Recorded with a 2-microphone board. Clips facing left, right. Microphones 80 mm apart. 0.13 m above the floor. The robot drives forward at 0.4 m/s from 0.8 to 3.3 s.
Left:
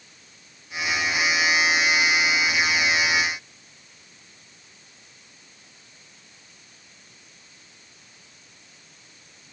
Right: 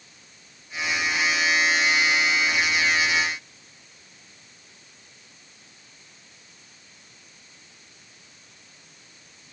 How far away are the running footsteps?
No running footsteps in this recording.